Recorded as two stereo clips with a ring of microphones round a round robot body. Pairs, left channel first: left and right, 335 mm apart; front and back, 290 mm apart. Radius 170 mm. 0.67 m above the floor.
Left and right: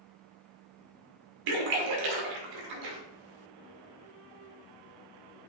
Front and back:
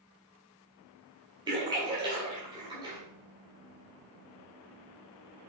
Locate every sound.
1.5 s a splash: 105° right, 1.8 m